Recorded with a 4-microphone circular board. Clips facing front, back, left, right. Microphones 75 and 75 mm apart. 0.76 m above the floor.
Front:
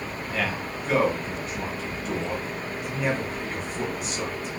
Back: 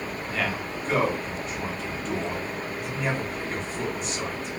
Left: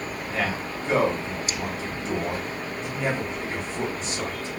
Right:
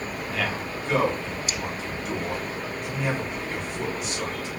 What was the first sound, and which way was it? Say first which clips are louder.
A man speaking: front 1 dB, left 2 dB; 85° left.